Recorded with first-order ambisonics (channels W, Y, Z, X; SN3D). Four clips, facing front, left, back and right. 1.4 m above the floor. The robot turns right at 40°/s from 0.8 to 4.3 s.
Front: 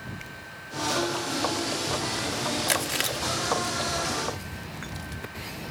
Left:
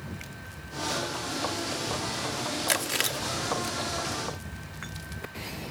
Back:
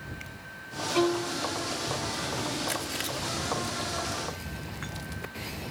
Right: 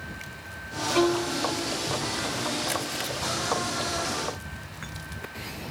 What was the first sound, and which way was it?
A violin, 115° right.